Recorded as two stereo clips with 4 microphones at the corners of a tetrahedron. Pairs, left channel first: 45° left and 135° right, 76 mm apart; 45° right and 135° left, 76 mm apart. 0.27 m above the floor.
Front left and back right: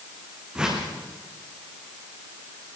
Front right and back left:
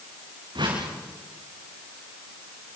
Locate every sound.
0.6 s a whoosh: 145° left, 6.5 m